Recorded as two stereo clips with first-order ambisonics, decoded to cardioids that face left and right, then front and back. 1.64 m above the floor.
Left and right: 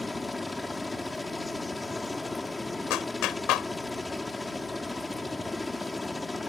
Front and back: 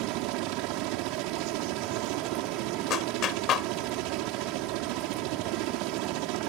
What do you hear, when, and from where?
0.0 s a helicopter: 170° left
2.9 s a clap: 50° left